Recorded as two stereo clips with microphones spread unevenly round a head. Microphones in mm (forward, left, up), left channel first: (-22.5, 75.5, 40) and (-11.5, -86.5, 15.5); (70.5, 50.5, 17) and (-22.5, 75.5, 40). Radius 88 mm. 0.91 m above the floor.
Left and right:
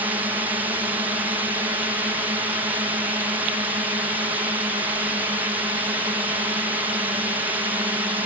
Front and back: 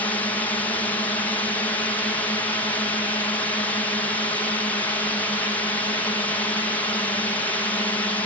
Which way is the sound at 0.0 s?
35° right.